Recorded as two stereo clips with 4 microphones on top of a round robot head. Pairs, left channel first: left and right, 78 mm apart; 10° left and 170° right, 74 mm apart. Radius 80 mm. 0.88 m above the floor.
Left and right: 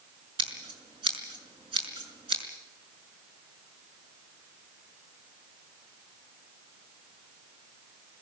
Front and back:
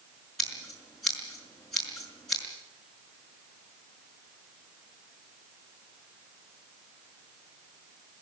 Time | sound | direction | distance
0.4 | scissors | 75° right | 6 m